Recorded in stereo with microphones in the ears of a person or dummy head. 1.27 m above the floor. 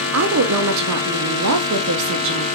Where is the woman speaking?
85° right, 0.6 m.